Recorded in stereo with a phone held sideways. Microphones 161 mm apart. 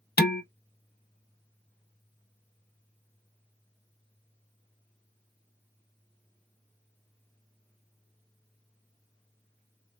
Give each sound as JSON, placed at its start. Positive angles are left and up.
{"t": 0.2, "sound": "dishes clattering", "side_deg": 85, "distance_m": 0.6}